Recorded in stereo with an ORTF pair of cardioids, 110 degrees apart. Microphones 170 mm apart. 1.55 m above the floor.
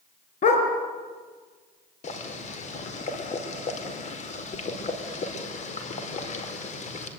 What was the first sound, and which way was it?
A dog barking, 45° left.